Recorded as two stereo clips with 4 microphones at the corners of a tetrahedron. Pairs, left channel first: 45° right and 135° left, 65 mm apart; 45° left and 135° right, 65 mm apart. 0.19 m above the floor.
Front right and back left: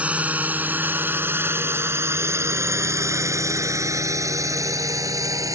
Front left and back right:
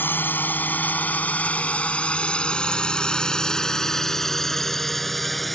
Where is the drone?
80° left; by 5.6 s 135° left.